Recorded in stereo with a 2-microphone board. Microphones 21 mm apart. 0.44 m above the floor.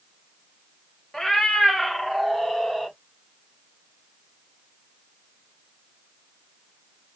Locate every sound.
1.1 s a cat meowing: 30° left (ahead or behind), 1.4 m; by 2.9 s 20° left (ahead or behind), 2.5 m